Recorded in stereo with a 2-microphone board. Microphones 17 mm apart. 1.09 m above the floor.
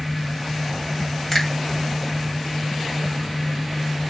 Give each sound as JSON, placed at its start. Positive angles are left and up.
{"t": 1.3, "sound": "a finger snap", "side_deg": 10, "distance_m": 2.5}